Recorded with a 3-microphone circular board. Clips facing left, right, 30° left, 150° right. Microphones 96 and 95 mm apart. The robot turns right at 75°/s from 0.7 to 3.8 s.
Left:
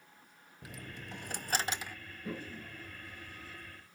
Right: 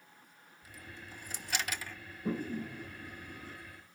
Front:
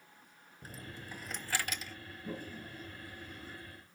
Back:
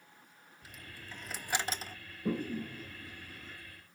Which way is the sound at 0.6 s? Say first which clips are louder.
Left 3 dB, front 4 dB; 80° left.